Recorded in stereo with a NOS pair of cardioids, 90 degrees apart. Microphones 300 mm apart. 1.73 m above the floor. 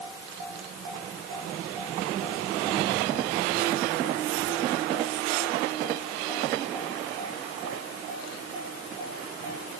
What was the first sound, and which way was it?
Only background noise.